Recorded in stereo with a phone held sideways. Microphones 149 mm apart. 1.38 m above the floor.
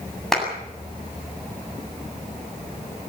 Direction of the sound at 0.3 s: Centre (ahead or behind).